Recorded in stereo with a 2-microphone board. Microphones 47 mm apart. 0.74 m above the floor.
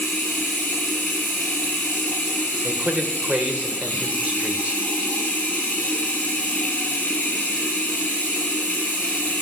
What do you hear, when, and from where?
0.0 s running water: 30° left (ahead or behind), 6 m
2.6 s a man speaking: 30° right (ahead or behind), 2.5 m